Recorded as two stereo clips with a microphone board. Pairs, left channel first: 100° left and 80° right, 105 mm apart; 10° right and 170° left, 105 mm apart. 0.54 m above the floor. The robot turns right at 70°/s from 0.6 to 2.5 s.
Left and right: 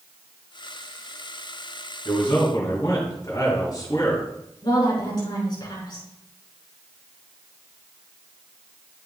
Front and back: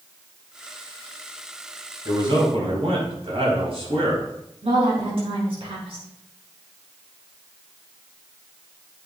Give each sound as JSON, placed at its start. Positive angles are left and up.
{"t": 2.0, "sound": "a man speaking", "azimuth_deg": 120, "distance_m": 4.5}
{"t": 4.6, "sound": "a woman speaking", "azimuth_deg": 145, "distance_m": 5.5}